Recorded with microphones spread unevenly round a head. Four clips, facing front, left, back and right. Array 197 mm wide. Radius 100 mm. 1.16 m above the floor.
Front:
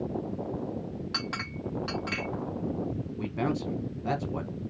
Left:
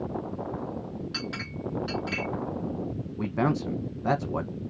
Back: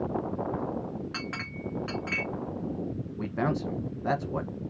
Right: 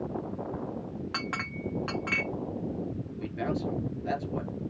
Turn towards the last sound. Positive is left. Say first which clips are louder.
# left 5 dB, back 1 dB
turn(degrees=105)